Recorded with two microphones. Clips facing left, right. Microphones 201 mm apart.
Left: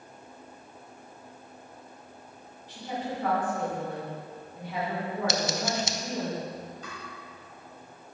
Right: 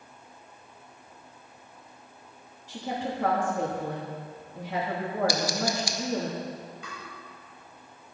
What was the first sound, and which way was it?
A woman speaking, 75° right (ahead or behind).